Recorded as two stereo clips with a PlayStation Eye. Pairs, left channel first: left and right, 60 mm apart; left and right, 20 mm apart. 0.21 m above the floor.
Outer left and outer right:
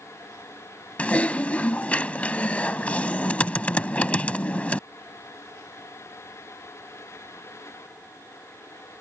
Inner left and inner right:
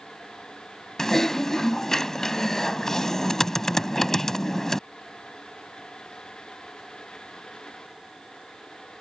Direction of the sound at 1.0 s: 25° left (ahead or behind).